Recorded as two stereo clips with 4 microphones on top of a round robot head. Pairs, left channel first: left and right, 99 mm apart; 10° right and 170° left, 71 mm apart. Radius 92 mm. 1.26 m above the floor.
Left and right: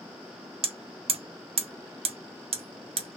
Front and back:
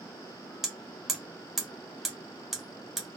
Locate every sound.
0.6 s hammering: 100° right, 0.6 m